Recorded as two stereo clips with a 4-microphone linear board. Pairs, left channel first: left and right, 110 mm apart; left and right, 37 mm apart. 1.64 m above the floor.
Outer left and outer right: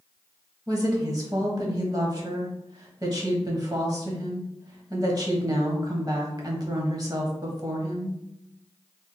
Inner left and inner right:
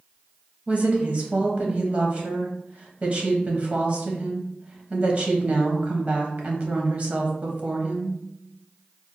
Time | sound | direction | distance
0.7 | a woman speaking | 35° right (ahead or behind) | 1.1 m